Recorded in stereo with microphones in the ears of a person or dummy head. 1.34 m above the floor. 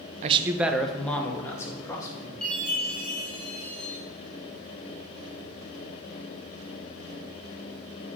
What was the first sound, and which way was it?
A man speaking, 40° right (ahead or behind).